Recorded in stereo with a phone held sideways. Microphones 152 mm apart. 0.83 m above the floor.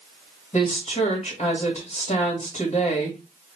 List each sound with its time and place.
0.5 s a woman speaking: 50° left (ahead or behind), 1.6 m